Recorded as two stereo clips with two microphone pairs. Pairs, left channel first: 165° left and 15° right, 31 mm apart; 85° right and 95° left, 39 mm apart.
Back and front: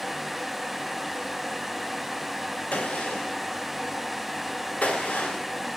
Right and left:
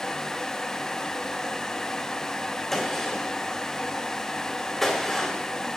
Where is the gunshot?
165° right, 2 m.